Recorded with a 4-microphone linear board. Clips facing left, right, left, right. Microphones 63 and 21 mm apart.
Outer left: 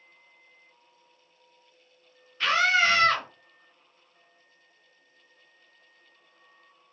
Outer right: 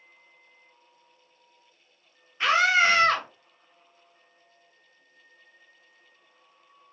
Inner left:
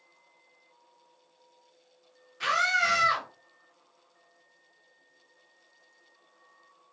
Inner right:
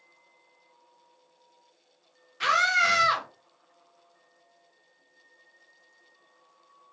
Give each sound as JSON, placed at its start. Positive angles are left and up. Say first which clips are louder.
{"t": 2.4, "sound": "a scream", "louder": "outer right 2 dB, inner right 3 dB", "side_deg": -15, "distance_m": 0.6}